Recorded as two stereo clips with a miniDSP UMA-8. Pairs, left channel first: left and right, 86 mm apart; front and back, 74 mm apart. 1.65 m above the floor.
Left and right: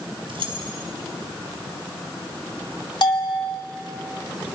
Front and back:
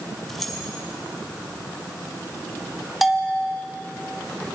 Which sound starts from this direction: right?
Keys jangling, at 0.3 s.